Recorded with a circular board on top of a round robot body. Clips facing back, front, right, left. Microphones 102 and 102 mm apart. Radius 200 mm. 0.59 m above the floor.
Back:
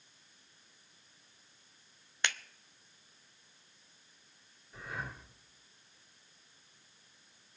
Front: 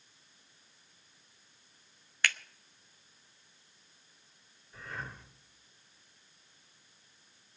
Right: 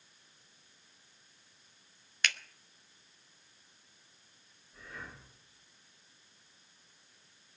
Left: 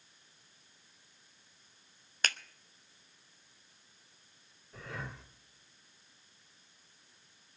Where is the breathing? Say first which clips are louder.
Back 1 dB, left 4 dB; 95° left, 2.5 m.